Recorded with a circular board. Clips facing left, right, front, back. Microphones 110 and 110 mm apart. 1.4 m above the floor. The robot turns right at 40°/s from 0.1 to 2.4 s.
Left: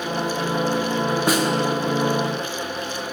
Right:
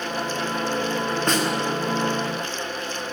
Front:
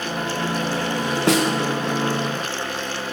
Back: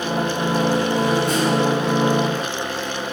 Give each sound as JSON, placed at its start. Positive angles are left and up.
{"t": 1.3, "sound": "a snare drum", "azimuth_deg": 5, "distance_m": 0.7}